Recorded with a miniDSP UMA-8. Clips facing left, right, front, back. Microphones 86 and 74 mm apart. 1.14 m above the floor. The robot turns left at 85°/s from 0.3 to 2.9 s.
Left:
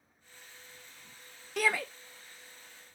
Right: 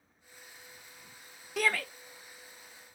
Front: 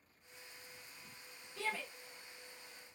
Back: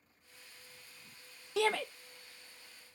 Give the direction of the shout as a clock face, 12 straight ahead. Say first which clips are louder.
Even, back 10 dB; 6 o'clock.